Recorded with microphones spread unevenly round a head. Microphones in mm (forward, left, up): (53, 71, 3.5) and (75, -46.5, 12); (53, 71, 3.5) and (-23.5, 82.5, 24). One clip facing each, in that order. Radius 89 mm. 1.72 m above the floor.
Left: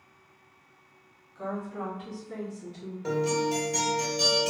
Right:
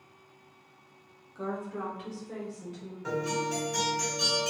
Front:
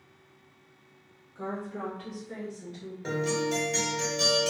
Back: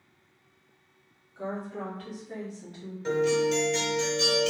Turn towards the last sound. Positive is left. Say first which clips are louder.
# left 4 dB, back 5 dB
turn(degrees=45)